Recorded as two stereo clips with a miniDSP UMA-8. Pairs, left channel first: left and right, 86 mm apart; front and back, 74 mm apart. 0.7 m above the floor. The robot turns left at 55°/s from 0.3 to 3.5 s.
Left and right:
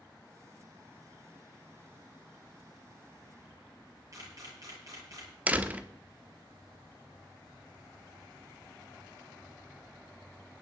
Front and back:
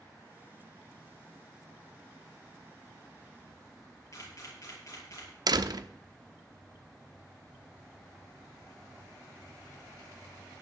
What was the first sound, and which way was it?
A camera shutter, 45° right.